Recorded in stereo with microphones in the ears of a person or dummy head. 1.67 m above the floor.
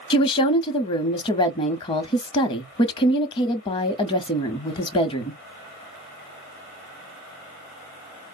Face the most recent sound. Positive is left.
turn(degrees=25)  # may be behind; listen again after turning